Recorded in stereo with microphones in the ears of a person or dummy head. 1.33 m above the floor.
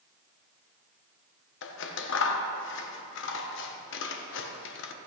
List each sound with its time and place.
1.6 s scissors: 60° left (ahead or behind), 1.1 m